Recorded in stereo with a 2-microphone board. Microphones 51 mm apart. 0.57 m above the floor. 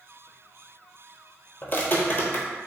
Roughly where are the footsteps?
Left.